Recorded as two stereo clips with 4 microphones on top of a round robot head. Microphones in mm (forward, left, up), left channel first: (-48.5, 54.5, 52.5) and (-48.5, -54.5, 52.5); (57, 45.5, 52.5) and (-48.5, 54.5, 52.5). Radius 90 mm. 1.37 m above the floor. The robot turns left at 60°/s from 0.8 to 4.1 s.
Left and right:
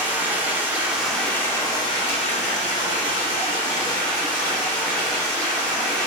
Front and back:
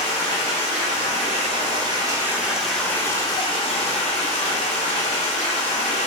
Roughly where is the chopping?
No chopping in this recording.